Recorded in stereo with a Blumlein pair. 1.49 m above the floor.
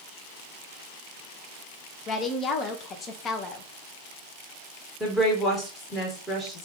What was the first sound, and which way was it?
A woman speaking, 25° left.